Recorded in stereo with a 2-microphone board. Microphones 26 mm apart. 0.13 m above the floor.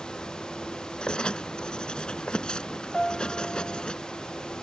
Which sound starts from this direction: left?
Writing, at 1.0 s.